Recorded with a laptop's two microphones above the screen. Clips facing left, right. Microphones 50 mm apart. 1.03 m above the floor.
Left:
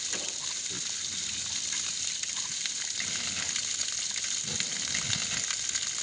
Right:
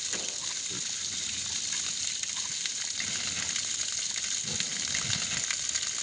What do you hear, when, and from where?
0.1 s a whoosh: 5° right (ahead or behind), 3 m